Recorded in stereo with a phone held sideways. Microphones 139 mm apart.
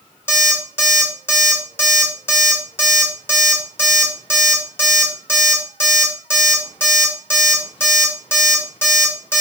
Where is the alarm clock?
15° left (ahead or behind), 1.7 m.